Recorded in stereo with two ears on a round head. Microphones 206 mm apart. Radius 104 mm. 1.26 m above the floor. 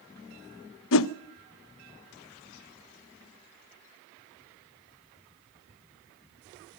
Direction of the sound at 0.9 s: 60° left (ahead or behind).